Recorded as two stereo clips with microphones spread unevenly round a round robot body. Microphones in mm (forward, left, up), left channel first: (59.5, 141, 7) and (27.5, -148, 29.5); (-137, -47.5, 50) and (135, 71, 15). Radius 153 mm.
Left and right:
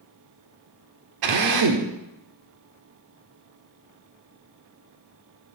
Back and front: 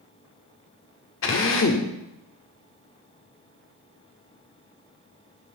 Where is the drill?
110° right, 1.3 m.